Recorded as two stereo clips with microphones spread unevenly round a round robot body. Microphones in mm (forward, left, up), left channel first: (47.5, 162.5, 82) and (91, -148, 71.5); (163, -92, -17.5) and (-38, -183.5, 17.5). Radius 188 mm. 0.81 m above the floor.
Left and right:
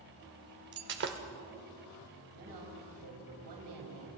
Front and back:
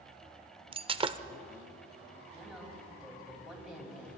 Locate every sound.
0.7 s breaking glass: 125° right, 0.5 m
2.3 s a woman speaking: 65° right, 4.5 m